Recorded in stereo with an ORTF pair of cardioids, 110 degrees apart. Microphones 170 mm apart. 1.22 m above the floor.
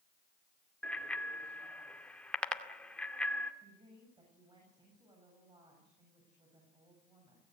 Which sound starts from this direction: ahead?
A bicycle bell, at 0.8 s.